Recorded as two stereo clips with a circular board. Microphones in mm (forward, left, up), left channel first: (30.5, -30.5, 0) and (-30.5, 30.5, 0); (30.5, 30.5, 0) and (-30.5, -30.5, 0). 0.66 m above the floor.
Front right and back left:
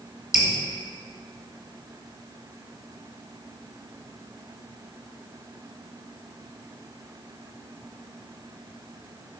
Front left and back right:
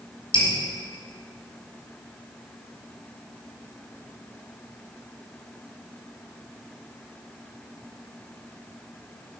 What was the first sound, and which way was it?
Dripping, 50° left.